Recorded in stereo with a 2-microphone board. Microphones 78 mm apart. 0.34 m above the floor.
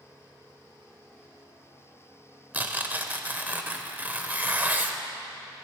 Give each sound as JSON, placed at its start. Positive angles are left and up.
{"t": 2.5, "sound": "tearing paper", "side_deg": -20, "distance_m": 0.6}